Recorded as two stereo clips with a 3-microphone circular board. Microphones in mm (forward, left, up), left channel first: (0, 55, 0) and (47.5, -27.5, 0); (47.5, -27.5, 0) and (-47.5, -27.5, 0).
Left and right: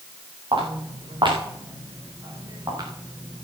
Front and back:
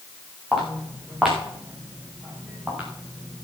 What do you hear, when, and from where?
0.5 s footsteps: 90° right, 7.5 m; by 3.4 s 105° right, 6.5 m